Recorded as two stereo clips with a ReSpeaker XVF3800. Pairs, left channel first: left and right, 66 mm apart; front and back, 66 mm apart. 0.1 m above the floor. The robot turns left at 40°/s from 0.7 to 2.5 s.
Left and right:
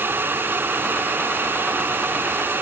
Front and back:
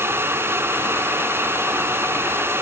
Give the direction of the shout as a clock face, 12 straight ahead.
I don't hear a shout.